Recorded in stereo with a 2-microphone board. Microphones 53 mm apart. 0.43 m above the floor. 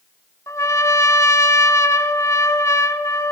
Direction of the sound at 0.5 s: 80° left.